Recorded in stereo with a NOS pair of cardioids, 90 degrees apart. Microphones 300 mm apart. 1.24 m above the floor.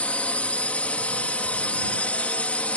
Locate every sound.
0.0 s a drone: 5° left